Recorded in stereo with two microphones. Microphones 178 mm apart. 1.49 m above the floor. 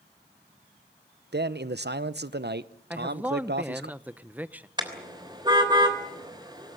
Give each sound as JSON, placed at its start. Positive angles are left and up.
{"t": 1.3, "sound": "a man speaking", "side_deg": -70, "distance_m": 0.8}
{"t": 2.9, "sound": "a man speaking", "side_deg": -10, "distance_m": 0.8}
{"t": 4.8, "sound": "a car horn", "side_deg": -25, "distance_m": 3.0}